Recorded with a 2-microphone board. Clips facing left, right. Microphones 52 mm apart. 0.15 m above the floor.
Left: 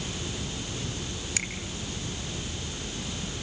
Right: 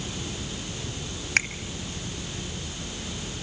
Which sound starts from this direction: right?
A finger snap, at 1.4 s.